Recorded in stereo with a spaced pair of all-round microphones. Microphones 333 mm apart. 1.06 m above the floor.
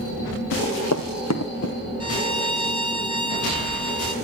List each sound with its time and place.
0.5 s running footsteps: 50° left (ahead or behind), 3 m; by 1.7 s 45° left (ahead or behind), 1.6 m
2.0 s a violin: 60° left (ahead or behind), 1.4 m